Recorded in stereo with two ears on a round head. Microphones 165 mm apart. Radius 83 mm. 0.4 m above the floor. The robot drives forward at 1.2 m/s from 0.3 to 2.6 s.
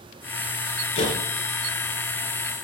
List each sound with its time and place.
0.9 s a door slam: 30° left (ahead or behind), 5 m; by 1.2 s 35° left (ahead or behind), 4.5 m